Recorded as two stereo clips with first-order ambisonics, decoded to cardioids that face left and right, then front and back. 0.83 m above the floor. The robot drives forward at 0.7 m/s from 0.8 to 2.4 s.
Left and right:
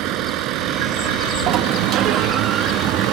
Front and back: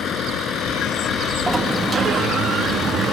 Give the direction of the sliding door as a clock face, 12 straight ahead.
3 o'clock.